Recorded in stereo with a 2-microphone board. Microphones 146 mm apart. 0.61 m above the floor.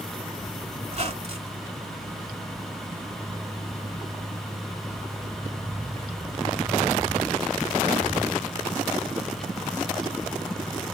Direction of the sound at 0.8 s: 45° right (ahead or behind).